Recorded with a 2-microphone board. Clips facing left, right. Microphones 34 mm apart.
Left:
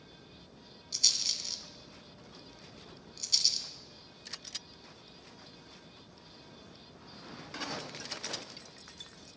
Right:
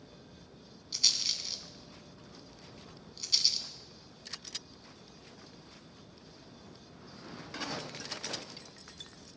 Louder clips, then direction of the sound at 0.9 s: Right 1 dB; 15° right (ahead or behind).